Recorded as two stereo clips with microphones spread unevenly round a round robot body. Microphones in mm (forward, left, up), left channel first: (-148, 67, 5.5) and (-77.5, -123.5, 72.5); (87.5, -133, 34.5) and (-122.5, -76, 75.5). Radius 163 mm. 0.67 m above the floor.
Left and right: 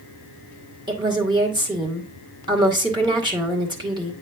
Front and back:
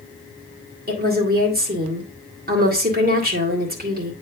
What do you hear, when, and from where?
0.9 s a woman speaking: 145° right, 2.5 m